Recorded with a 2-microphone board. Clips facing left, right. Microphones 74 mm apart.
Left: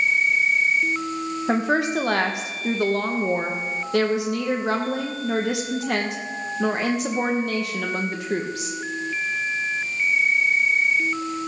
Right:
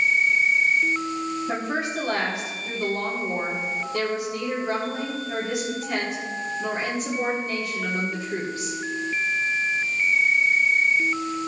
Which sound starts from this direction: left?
A woman speaking, at 1.5 s.